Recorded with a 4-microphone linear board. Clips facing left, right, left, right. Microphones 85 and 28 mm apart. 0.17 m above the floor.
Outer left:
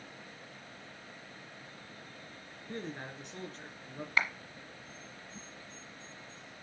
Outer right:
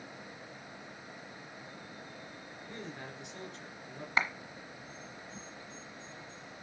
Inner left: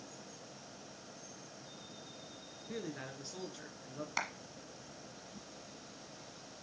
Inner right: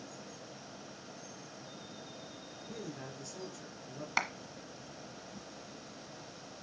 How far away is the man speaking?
About 2.5 m.